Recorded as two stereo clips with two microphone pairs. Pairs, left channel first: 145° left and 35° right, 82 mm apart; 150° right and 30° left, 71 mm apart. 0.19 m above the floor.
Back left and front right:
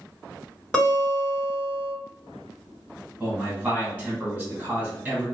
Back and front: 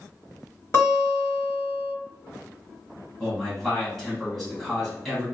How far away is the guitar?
About 1.9 m.